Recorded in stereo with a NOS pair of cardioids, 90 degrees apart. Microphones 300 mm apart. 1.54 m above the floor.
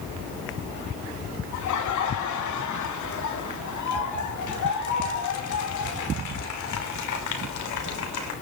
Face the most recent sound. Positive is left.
turn(degrees=70)